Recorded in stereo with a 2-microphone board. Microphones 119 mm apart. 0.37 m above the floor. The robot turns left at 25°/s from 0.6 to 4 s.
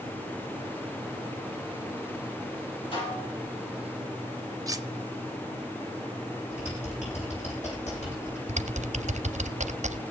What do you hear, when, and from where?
2.9 s dishes clattering: 45° left (ahead or behind), 8 m; by 3.3 s 55° left (ahead or behind), 8 m
4.7 s cutlery clinking: 30° right (ahead or behind), 0.8 m
6.5 s typing on a keyboard: 75° left (ahead or behind), 9.5 m
8.5 s typing on a keyboard: 75° right (ahead or behind), 0.6 m